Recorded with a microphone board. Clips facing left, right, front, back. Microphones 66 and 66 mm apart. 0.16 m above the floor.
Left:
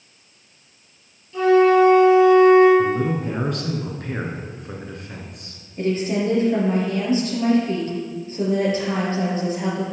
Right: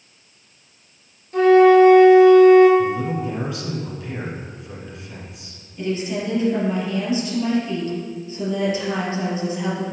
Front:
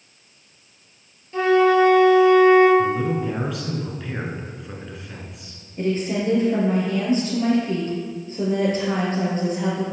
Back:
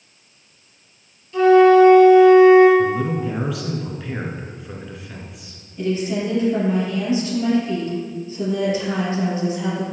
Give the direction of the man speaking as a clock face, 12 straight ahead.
9 o'clock.